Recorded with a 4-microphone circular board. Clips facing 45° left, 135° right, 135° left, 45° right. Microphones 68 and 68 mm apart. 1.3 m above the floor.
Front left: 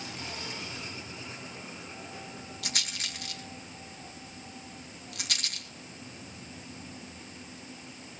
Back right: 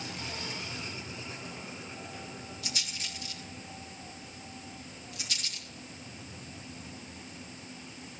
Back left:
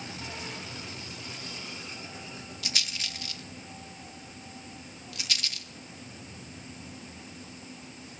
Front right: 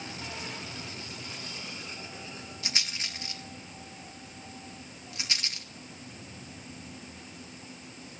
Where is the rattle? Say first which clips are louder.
Front left 5 dB, even; 20° left, 2.5 m.